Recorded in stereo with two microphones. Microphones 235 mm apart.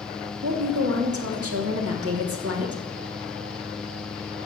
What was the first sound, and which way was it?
A woman speaking, 75° right (ahead or behind).